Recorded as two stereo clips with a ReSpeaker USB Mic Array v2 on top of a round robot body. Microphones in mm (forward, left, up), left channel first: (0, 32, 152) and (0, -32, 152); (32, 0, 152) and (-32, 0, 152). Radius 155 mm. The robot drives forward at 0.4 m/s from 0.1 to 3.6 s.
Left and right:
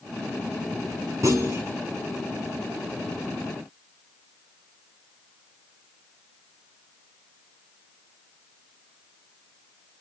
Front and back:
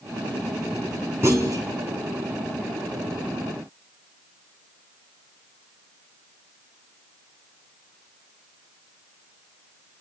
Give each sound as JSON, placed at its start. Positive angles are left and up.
{"t": 1.2, "sound": "a clunk", "azimuth_deg": -130, "distance_m": 0.7}